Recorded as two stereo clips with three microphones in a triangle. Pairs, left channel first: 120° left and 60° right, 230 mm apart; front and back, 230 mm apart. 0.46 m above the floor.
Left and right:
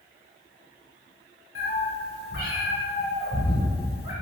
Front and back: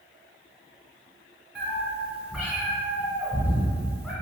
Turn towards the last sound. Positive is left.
turn(degrees=95)